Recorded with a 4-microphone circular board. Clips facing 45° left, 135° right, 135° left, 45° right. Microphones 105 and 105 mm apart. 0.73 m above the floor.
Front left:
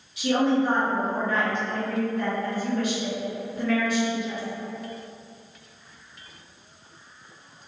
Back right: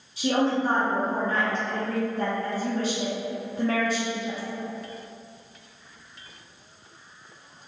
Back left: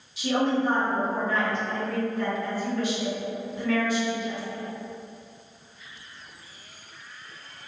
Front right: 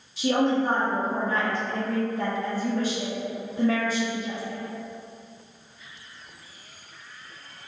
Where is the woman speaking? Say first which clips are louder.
Front left 2 dB, front right 2 dB; 85° right, 0.8 m.